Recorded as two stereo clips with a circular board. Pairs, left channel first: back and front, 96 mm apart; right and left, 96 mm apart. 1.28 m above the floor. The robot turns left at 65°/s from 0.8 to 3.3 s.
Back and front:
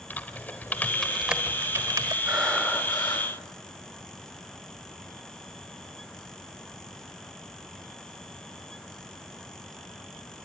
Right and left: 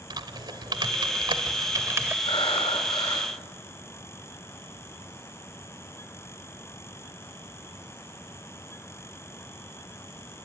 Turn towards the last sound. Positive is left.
turn(degrees=-150)